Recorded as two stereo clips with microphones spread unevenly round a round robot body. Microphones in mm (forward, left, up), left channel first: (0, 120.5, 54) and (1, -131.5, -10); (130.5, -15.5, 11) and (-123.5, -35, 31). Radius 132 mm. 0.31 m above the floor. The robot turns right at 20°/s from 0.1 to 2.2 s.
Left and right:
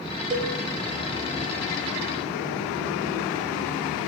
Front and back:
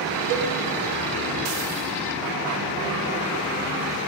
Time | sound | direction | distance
0.3 | a cowbell | 165° right | 0.5 m